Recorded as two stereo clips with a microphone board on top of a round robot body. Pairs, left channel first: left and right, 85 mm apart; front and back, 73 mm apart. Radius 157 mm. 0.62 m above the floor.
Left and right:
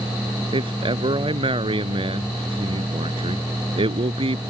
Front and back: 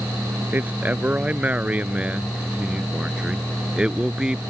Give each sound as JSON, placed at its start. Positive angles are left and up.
{"t": 0.5, "sound": "a man speaking", "azimuth_deg": -110}